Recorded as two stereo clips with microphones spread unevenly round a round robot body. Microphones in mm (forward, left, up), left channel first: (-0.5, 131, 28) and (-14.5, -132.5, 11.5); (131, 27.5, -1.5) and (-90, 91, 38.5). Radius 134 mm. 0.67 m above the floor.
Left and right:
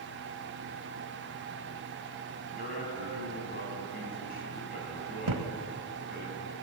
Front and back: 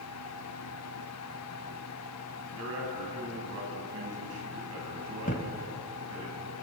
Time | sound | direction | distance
2.5 | a man speaking | 145° left | 6.5 m
5.3 | a thud | 80° right | 1.8 m